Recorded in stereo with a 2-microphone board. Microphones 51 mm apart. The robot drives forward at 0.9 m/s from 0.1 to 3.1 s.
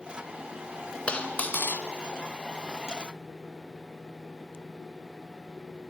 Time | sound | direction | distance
1.1 | a dropped coin | 25° left (ahead or behind) | 1.1 m